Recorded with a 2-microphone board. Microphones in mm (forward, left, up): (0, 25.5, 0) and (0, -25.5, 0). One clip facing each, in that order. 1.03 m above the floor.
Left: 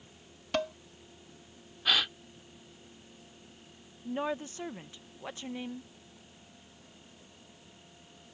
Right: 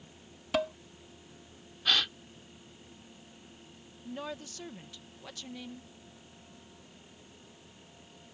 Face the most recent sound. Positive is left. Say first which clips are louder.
# left 6 dB
turn(degrees=25)  # may be behind; listen again after turning